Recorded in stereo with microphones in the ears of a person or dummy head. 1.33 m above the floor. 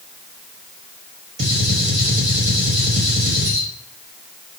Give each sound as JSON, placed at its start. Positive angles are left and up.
{"t": 1.4, "sound": "a gunshot", "side_deg": -45, "distance_m": 1.1}